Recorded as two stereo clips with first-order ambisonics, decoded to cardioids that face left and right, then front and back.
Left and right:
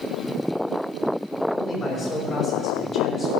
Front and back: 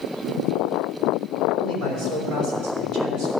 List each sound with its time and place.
1.5 s a man speaking: 165° left, 4.5 m